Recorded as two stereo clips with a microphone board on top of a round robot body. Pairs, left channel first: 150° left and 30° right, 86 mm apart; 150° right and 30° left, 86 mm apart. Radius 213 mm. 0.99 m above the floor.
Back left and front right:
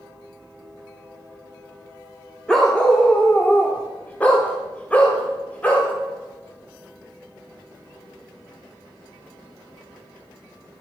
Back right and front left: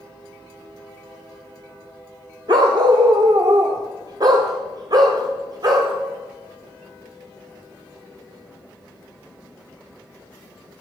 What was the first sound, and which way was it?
A dog barking, 65° left.